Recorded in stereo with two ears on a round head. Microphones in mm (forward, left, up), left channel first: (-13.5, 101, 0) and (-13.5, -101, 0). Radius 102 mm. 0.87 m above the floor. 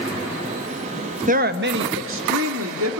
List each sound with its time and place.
1.3 s a woman speaking: 35° right (ahead or behind), 1.0 m; by 3.0 s 75° right (ahead or behind), 2.5 m